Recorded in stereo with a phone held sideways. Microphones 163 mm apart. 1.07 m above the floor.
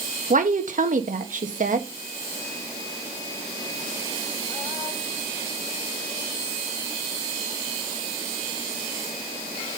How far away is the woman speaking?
About 1.2 m.